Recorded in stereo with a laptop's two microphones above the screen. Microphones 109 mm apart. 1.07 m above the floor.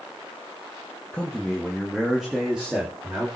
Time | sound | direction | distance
1.1 | a man speaking | 10° left (ahead or behind) | 1.5 m